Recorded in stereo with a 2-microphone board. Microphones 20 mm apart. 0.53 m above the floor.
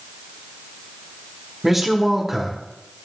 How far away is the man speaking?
About 1.1 m.